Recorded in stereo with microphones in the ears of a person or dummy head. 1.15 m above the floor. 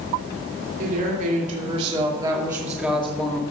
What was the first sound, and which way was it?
A woman speaking, 50° right (ahead or behind).